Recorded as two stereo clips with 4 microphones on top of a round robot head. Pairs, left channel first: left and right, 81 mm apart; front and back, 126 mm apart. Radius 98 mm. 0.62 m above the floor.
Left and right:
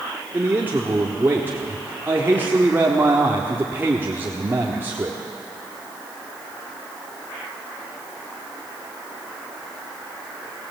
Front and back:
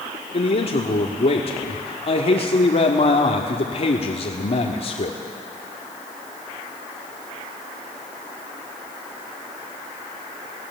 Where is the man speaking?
25° right, 1.7 m.